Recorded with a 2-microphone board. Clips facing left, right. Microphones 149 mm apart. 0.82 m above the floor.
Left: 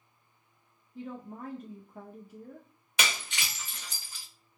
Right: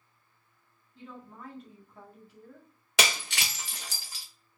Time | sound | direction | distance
0.9 | a woman speaking | 45° left (ahead or behind) | 0.8 m
3.0 | breaking glass | 85° right | 1.0 m